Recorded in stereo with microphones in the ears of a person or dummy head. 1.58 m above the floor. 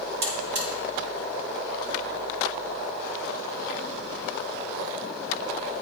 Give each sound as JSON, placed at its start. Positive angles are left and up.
{"t": 0.2, "sound": "a buzzer", "side_deg": -65, "distance_m": 3.0}